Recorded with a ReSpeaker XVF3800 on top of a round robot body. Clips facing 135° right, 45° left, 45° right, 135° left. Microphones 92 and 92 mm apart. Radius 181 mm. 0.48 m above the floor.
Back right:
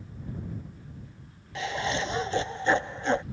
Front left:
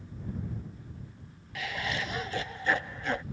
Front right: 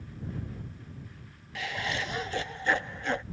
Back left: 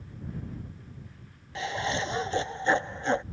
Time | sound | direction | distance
1.6 | laughter | straight behind | ?